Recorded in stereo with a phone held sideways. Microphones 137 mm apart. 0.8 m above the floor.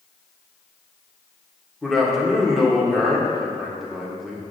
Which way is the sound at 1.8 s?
Centre (ahead or behind).